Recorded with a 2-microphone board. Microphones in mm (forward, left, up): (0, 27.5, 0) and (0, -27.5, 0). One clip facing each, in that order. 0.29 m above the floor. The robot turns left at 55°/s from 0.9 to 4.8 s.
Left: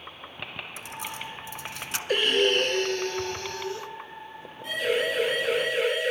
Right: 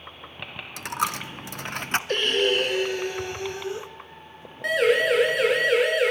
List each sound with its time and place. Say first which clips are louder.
0.8 s a dropped coin: right 12 dB; 75° right (ahead or behind), 0.8 m; by 2.0 s 40° right (ahead or behind), 0.8 m
2.1 s breathing: left 1 dB; 5° left (ahead or behind), 1.3 m; by 3.9 s 20° right (ahead or behind), 1.3 m
4.6 s a siren: right 6 dB; 70° right (ahead or behind), 6 m; by 6.1 s 75° right (ahead or behind), 6.5 m